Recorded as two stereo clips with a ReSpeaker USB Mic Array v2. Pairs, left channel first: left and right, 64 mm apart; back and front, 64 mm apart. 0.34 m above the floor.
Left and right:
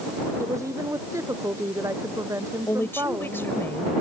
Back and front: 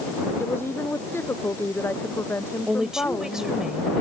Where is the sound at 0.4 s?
125° right.